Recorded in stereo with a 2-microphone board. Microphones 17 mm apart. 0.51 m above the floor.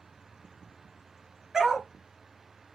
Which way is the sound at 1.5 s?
30° right (ahead or behind).